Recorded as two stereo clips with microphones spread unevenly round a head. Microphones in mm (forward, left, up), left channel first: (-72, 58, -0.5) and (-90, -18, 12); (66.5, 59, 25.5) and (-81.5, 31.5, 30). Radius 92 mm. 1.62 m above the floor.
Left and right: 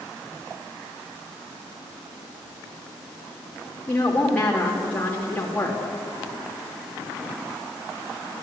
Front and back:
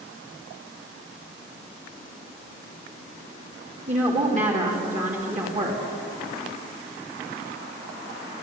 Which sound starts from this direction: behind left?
A woman speaking, at 3.9 s.